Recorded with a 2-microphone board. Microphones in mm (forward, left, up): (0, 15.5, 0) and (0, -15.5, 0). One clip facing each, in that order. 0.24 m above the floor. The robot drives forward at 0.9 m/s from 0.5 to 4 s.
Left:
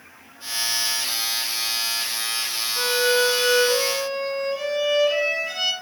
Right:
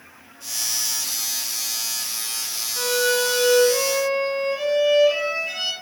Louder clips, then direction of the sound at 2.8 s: Left 1 dB; 10° left (ahead or behind).